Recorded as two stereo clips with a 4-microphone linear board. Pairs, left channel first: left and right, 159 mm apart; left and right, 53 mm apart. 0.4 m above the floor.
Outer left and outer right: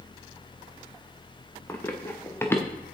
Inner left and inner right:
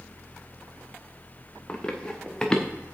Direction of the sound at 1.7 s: 15° left (ahead or behind).